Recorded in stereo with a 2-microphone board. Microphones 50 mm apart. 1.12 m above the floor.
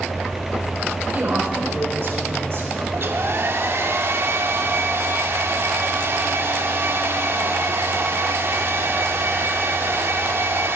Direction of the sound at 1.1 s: 40° right (ahead or behind).